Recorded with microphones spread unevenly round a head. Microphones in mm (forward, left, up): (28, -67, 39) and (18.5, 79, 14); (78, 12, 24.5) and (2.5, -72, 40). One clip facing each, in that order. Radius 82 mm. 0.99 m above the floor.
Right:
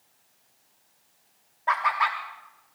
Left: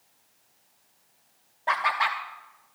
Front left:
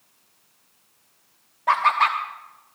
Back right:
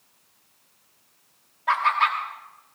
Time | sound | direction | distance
1.7 | laughter | 65° left | 1.0 m